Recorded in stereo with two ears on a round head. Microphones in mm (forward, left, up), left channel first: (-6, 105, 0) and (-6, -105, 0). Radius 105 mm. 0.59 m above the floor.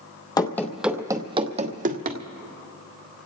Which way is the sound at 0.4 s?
15° left (ahead or behind).